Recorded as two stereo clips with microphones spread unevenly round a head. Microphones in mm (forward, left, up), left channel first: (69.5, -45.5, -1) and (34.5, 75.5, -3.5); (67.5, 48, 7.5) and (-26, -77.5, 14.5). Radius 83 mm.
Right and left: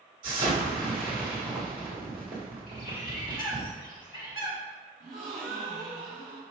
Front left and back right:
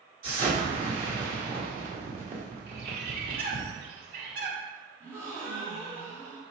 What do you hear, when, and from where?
0.2 s an explosion: 170° left, 1.6 m
2.7 s a bird: 105° right, 1.8 m
5.0 s a gasp: 155° left, 1.5 m